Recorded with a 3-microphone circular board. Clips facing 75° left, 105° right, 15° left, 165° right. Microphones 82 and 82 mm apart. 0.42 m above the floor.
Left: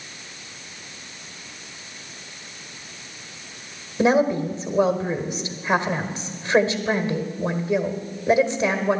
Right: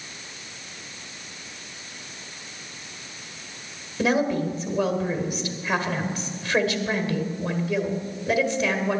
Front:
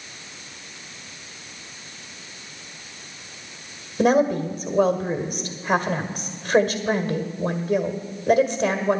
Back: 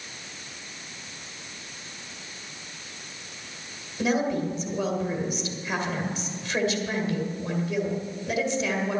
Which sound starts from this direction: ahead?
A woman speaking, at 4.0 s.